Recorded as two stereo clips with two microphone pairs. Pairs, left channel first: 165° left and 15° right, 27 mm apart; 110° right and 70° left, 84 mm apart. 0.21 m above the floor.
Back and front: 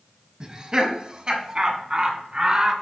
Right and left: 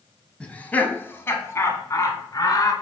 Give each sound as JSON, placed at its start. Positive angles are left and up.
{"t": 0.4, "sound": "laughter", "azimuth_deg": -50, "distance_m": 1.1}